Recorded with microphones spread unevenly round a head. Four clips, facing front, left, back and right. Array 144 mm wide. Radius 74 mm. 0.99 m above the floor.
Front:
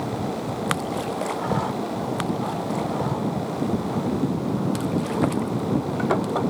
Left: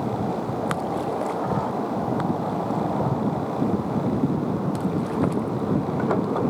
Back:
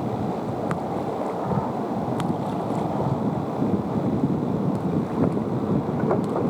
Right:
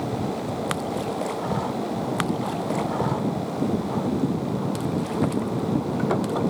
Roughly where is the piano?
No piano in this recording.